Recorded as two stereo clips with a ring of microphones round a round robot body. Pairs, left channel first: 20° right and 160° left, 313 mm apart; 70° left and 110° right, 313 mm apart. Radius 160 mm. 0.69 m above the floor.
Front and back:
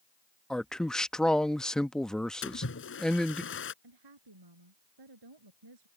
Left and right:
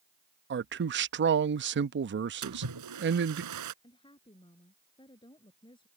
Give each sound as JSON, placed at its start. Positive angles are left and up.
{"t": 0.5, "sound": "a man speaking", "azimuth_deg": -110}
{"t": 2.4, "sound": "a splash", "azimuth_deg": -75}
{"t": 3.8, "sound": "a woman speaking", "azimuth_deg": 145}